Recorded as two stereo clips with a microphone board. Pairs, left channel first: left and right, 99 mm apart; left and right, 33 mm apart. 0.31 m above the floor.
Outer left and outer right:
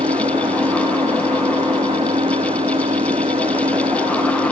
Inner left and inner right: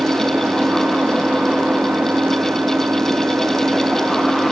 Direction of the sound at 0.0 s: 80° right.